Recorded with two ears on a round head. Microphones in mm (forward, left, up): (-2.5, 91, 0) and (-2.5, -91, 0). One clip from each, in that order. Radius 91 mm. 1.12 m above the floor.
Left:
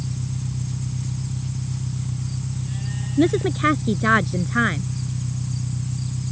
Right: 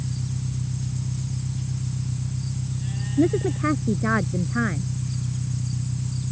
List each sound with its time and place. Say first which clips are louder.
0.0 s an engine running: left 1 dB; 70° left (ahead or behind)
3.2 s a woman speaking: left 3 dB; 80° left